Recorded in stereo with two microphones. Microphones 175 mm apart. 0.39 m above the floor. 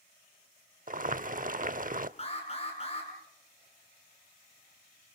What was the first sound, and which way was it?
Boiling, 50° right (ahead or behind).